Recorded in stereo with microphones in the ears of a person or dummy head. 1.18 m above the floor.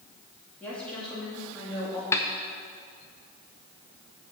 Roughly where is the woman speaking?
Centre.